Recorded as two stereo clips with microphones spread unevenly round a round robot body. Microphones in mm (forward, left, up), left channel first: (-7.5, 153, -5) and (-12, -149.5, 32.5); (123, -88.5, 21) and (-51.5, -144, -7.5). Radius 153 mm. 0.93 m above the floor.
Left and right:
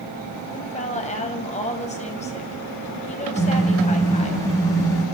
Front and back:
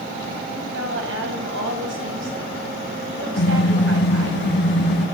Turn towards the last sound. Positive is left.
turn(degrees=10)